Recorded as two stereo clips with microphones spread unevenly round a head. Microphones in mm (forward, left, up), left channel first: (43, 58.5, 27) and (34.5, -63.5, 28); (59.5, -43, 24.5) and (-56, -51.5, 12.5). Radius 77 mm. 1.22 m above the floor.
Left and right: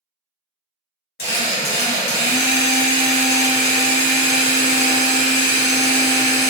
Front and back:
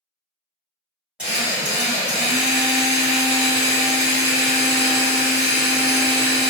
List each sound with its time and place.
1.2 s a drill: 100° left, 1.4 m